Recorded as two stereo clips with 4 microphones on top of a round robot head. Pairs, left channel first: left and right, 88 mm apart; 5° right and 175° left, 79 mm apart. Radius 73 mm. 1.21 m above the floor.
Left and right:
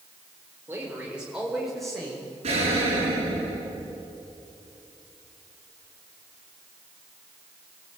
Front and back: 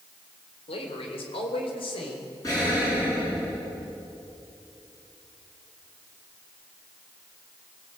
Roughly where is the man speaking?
Ahead.